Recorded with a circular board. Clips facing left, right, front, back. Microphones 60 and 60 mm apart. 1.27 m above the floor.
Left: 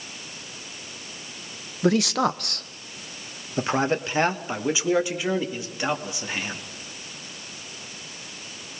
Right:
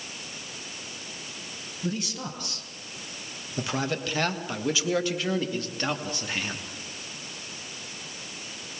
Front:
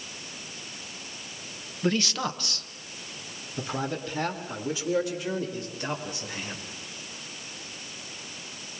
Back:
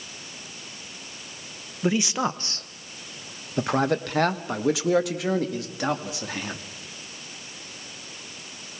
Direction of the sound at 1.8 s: 100° left.